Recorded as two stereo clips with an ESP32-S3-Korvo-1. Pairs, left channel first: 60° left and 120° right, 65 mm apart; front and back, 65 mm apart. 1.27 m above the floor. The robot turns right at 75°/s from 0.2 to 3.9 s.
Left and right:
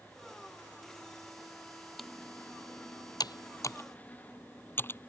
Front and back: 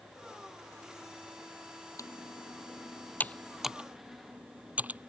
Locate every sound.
2.0 s typing on a keyboard: 30° right; by 5.1 s 115° left